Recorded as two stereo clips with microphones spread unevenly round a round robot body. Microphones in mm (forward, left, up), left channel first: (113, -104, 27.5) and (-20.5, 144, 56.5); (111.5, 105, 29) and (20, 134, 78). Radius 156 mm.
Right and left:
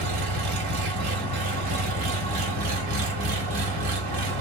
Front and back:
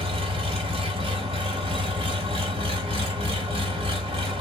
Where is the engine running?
140° left, 1.0 m.